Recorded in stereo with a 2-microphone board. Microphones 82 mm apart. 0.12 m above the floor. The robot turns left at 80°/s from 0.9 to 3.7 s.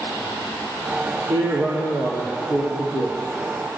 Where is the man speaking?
70° right, 3 m; by 3.8 s 100° left, 3 m.